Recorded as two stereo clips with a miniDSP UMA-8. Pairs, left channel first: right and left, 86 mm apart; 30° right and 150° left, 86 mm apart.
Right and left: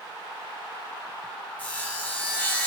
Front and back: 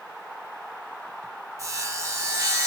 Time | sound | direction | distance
1.6 | sawing | 160° right | 3 m